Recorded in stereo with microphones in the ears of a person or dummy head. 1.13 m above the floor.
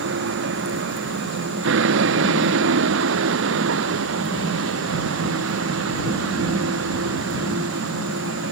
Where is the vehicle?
70° right (ahead or behind); by 8.5 s 80° right.